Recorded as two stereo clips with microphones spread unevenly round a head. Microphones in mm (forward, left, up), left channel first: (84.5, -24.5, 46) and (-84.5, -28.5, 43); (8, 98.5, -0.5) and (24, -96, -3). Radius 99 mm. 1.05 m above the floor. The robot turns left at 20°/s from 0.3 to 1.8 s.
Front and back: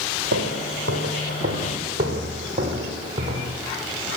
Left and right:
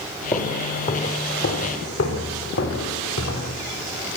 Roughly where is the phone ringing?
No phone ringing in this recording.